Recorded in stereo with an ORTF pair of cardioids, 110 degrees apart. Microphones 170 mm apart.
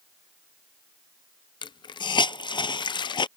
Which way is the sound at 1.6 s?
30° left.